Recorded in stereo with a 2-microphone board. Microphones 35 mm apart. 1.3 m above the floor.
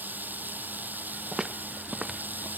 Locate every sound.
0.0 s running water: 60° right (ahead or behind)
1.3 s footsteps: 20° right (ahead or behind)